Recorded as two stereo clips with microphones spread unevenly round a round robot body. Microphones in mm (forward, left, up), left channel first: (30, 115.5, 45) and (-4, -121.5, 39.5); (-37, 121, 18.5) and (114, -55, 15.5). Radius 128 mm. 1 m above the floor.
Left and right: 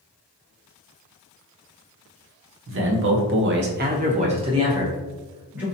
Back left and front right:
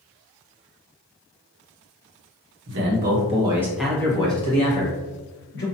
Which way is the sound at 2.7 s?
75° right.